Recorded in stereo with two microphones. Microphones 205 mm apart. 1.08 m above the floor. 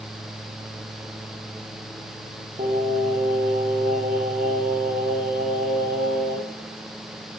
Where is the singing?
40° right (ahead or behind), 0.8 m.